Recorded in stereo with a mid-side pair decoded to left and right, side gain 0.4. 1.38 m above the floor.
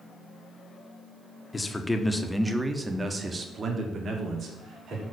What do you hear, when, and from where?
1.5 s a man speaking: 25° left, 1.2 m; by 5.0 s 65° right, 2.5 m